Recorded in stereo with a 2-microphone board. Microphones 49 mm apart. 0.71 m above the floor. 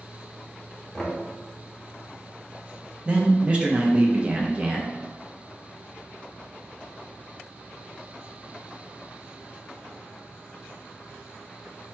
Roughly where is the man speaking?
Right.